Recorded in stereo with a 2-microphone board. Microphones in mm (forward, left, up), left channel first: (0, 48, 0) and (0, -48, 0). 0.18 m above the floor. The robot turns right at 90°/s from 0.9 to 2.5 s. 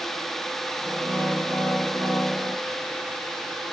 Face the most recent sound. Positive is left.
No sound to turn to.